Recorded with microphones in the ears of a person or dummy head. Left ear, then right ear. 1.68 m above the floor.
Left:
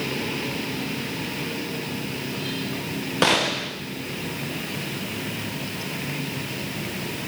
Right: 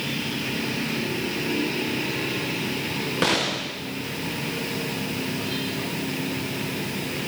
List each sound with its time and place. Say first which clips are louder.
3.2 s a gunshot: left 4 dB; 5° left (ahead or behind), 0.7 m